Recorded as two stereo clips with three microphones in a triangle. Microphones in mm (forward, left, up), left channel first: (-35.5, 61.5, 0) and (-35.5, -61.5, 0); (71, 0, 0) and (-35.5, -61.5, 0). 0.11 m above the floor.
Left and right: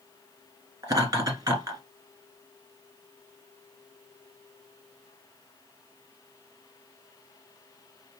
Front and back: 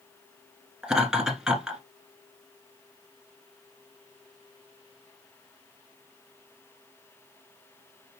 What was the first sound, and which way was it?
Laughter, 70° right.